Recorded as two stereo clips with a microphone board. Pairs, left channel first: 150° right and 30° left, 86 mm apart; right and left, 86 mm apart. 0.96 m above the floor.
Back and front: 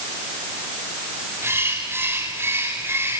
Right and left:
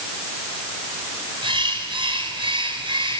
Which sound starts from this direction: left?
A bird, at 1.4 s.